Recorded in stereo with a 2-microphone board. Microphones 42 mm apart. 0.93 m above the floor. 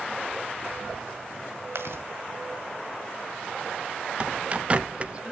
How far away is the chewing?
About 2.0 m.